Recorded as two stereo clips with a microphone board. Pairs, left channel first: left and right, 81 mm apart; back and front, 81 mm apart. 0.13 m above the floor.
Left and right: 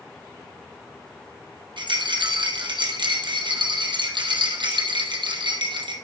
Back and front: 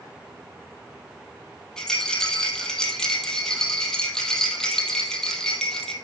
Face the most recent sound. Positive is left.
turn(degrees=-100)